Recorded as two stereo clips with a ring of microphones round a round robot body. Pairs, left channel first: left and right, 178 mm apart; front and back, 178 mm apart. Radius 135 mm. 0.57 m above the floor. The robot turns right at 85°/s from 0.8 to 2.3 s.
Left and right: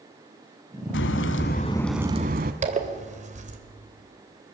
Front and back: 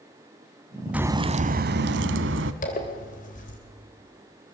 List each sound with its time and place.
0.9 s a crack: 95° left, 0.9 m; by 2.5 s 145° right, 0.9 m
2.6 s a zipper: 50° right, 3 m